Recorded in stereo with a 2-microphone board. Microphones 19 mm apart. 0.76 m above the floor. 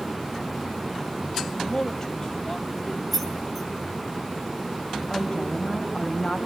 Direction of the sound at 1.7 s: 30° left (ahead or behind).